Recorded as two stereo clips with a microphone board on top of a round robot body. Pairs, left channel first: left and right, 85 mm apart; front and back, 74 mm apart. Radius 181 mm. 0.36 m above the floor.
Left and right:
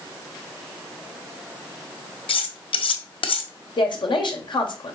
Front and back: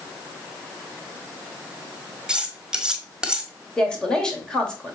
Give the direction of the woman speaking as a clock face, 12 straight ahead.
9 o'clock.